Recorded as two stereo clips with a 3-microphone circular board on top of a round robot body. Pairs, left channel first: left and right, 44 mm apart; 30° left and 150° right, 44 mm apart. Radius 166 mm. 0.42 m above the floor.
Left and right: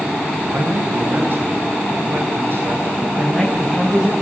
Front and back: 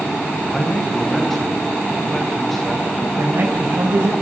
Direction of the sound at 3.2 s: 175° right.